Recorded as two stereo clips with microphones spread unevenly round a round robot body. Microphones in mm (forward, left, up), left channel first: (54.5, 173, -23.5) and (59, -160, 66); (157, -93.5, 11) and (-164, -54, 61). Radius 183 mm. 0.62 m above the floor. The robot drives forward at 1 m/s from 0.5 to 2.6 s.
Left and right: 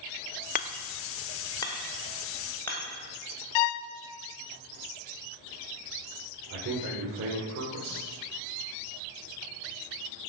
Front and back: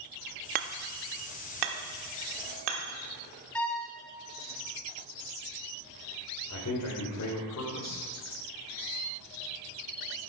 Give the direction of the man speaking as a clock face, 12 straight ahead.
1 o'clock.